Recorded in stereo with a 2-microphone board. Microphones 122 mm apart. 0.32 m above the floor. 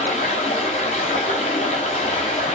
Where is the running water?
75° left (ahead or behind), 0.9 m.